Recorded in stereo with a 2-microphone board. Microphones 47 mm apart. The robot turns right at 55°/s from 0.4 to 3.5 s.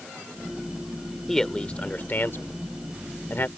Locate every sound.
1.3 s a man speaking: 5° left (ahead or behind); by 3.5 s 45° left (ahead or behind)